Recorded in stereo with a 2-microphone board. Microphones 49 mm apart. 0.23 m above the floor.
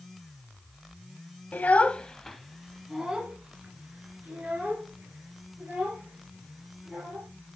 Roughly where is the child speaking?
Left.